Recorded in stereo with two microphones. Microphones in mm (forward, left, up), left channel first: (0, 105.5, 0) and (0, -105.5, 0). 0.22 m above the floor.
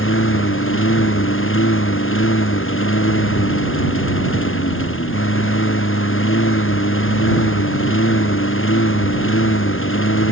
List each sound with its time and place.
0.0 s a lawn mower: 75° left (ahead or behind)